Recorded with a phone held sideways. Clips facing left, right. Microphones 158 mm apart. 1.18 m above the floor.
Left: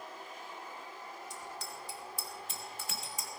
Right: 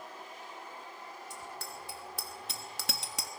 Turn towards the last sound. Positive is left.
turn(degrees=-70)  # may be behind; listen again after turning